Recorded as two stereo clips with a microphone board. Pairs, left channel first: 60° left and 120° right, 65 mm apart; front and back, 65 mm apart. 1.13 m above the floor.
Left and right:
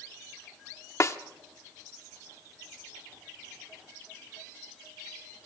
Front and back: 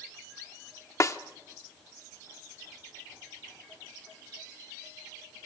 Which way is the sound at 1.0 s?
30° left.